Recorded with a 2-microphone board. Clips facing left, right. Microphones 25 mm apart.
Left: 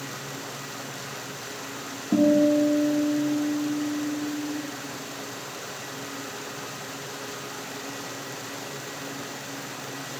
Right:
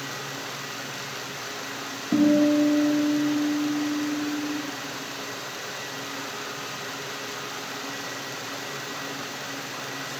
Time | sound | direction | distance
2.1 | a guitar | 55° left (ahead or behind) | 0.7 m